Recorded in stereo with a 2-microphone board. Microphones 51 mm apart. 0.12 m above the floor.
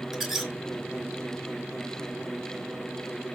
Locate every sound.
0.1 s a squeak: 5° right (ahead or behind), 0.6 m